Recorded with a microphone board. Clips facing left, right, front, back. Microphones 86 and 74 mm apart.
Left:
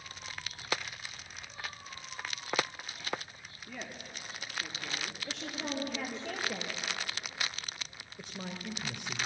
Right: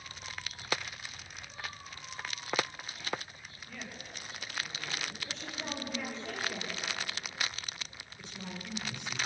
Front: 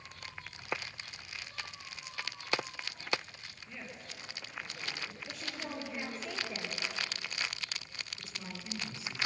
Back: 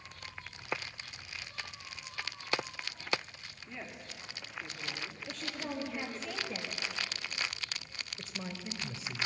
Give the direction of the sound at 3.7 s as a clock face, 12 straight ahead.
9 o'clock.